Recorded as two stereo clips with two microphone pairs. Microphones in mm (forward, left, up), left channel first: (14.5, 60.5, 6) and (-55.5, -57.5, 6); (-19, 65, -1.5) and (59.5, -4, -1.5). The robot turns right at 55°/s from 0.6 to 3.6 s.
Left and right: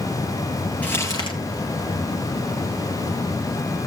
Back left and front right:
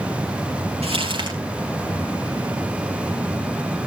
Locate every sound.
0.8 s crumpling: 20° right, 4.5 m; by 1.4 s 10° left, 4.5 m